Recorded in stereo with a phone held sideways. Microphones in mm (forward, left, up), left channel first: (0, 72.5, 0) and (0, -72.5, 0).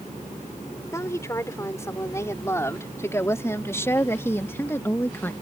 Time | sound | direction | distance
0.9 | a woman speaking | 20° left (ahead or behind) | ?